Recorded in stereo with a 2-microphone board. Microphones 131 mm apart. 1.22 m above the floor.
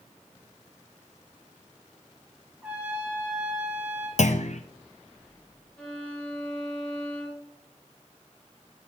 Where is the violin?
10° left (ahead or behind), 2 m.